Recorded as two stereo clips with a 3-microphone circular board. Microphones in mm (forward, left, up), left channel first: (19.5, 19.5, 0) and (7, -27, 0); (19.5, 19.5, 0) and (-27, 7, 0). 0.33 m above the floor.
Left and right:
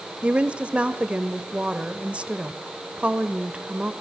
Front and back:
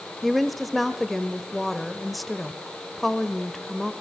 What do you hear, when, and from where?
0.2 s a woman speaking: 75° right, 1.1 m